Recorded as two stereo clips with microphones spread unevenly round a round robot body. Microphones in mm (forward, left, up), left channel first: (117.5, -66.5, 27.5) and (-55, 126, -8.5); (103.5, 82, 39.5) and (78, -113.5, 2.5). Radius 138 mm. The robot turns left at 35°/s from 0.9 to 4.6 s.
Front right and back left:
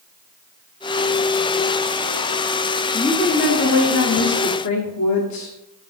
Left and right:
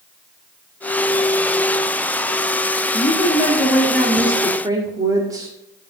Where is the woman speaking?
30° left, 1.8 m; by 5.5 s 30° right, 1.8 m.